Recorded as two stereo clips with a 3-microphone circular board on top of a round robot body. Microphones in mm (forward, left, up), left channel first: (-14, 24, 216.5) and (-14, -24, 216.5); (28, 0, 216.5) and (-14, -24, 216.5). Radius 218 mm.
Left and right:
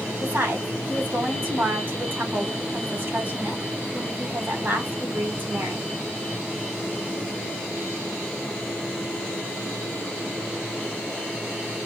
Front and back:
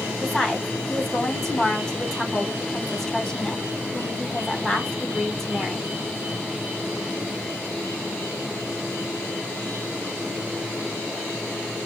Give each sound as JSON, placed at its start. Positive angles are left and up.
{"t": 0.2, "sound": "a woman speaking", "azimuth_deg": -50, "distance_m": 3.0}